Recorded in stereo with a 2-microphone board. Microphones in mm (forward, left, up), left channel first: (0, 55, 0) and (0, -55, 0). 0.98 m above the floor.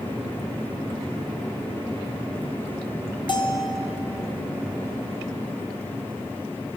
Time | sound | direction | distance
3.3 | a bell | 45° left (ahead or behind) | 0.6 m